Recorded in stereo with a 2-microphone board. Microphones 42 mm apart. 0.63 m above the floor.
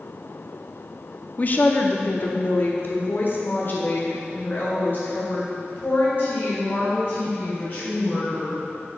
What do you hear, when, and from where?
1.4 s a woman speaking: 35° left (ahead or behind), 0.6 m; by 8.6 s 45° left (ahead or behind), 4 m